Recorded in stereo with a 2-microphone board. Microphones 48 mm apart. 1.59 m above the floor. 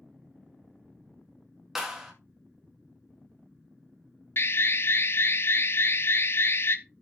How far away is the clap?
About 2 m.